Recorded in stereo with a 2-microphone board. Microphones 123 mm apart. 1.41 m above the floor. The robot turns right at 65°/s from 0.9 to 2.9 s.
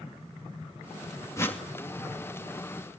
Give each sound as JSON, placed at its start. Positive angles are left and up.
{"t": 1.4, "sound": "a whoosh", "side_deg": 25, "distance_m": 2.5}